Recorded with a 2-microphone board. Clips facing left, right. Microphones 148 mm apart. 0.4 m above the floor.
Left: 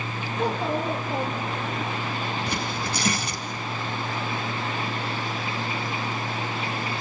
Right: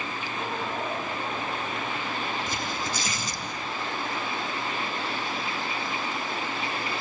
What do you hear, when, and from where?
0.4 s a child speaking: 85° left, 7 m; by 1.8 s 90° left, 8 m
2.5 s tearing paper: 70° left (ahead or behind), 3 m